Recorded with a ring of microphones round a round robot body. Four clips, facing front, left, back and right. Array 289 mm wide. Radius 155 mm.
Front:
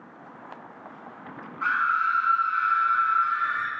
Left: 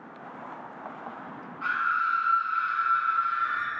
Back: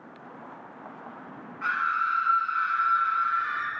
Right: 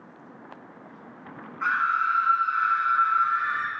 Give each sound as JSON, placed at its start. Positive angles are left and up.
{"t": 1.6, "sound": "a scream", "azimuth_deg": -40, "distance_m": 5.0}